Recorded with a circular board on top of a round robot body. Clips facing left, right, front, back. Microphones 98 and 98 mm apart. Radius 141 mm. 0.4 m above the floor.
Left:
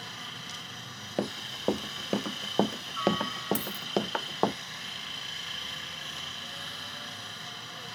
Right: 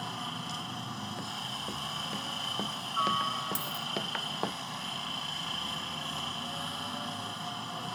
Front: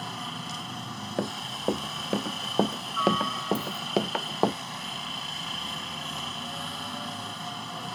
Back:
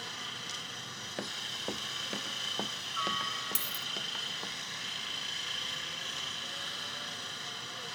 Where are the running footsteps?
55° left; by 4.5 s 25° left.